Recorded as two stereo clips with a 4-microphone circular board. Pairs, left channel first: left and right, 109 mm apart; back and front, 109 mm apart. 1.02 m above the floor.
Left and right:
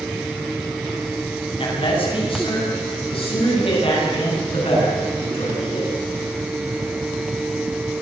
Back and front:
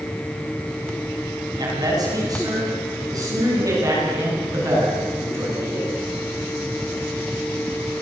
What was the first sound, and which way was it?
A man speaking, 55° left.